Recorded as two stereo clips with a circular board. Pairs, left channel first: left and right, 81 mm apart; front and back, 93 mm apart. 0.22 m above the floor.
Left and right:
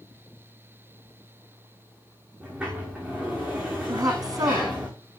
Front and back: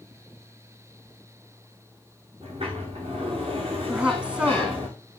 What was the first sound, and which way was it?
A sliding door, 165° right.